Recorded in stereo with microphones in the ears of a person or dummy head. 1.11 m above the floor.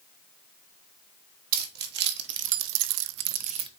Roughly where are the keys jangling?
Right.